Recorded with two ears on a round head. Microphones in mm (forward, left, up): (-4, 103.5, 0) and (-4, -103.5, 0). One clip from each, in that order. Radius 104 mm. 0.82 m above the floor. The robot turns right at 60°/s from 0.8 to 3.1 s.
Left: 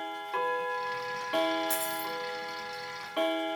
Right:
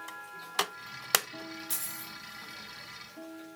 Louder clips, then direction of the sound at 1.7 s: Left 9 dB; 10° left (ahead or behind).